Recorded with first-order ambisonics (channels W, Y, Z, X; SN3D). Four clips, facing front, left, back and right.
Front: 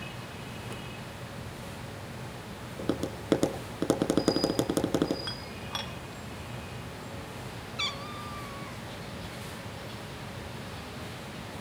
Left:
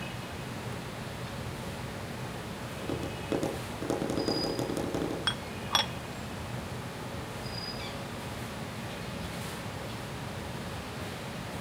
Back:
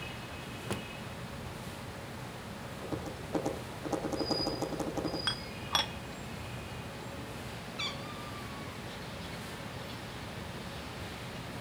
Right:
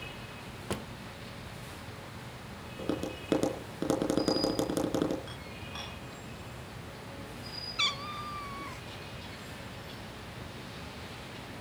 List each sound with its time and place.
0.7 s a drawer: 120° right, 0.5 m
2.8 s tapping: 15° right, 3.5 m
5.3 s dishes clattering: 110° left, 1.3 m
7.8 s a cat meowing: 70° right, 1.0 m